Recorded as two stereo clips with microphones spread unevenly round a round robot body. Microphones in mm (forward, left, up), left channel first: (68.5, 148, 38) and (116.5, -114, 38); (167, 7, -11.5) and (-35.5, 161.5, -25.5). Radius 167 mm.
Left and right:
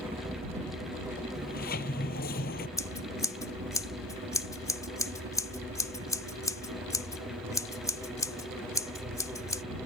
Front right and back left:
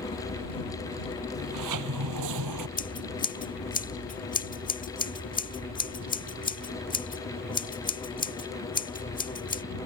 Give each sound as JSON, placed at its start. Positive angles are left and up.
{"t": 0.0, "sound": "a helicopter", "azimuth_deg": -30}
{"t": 1.3, "sound": "a sliding door", "azimuth_deg": 165}
{"t": 2.8, "sound": "scissors", "azimuth_deg": 20}